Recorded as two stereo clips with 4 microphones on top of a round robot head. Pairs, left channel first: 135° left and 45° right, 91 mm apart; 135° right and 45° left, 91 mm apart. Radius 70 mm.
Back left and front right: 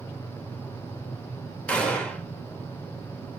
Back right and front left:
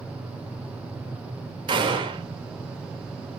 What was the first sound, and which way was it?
A gunshot, 60° left.